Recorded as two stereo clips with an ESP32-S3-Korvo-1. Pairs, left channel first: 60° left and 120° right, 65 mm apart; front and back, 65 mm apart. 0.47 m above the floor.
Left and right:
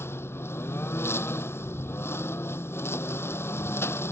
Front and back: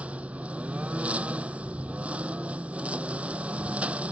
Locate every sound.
0.0 s a lawn mower: 110° left